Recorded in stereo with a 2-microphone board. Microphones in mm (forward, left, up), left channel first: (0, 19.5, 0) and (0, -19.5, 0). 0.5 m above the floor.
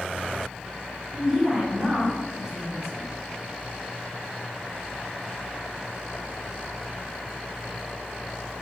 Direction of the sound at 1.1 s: 15° right (ahead or behind).